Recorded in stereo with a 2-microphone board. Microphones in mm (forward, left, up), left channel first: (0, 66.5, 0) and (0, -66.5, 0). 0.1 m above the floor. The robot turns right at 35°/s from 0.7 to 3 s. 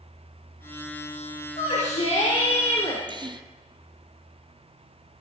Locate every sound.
1.6 s a shout: 85° left, 5 m; by 3.0 s 135° left, 5 m
3.1 s a gasp: 40° right (ahead or behind), 0.8 m